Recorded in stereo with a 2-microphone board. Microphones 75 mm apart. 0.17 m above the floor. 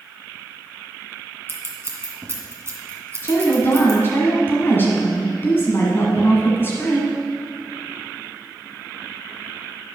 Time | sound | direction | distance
1.5 | scissors | 35° right (ahead or behind) | 2 m
3.2 | a woman speaking | 30° left (ahead or behind) | 1.7 m